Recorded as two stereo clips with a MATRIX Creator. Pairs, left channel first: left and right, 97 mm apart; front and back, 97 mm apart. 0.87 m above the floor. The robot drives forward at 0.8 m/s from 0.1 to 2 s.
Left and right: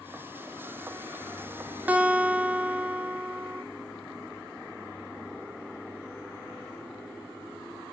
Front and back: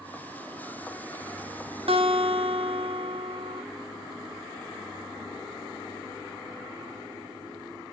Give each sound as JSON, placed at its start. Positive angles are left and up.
{"t": 1.9, "sound": "a guitar", "azimuth_deg": -165, "distance_m": 1.1}